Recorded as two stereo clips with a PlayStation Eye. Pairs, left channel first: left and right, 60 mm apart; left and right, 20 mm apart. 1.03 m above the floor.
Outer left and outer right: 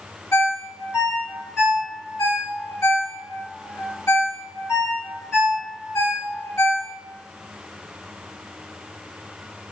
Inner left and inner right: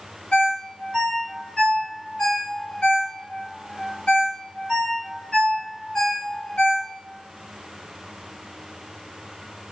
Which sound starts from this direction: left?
A ringtone, at 0.3 s.